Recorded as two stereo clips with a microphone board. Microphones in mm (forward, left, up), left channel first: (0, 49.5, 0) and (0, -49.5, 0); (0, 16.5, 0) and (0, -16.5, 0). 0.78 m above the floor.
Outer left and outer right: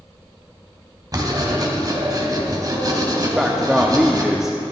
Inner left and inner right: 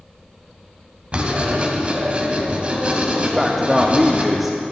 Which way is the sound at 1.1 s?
40° right (ahead or behind).